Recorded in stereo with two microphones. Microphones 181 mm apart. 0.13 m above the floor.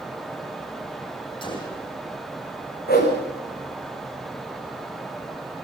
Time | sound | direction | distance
1.4 | a gunshot | 25° left (ahead or behind) | 6.5 m
2.9 | a whoosh | 60° left (ahead or behind) | 6 m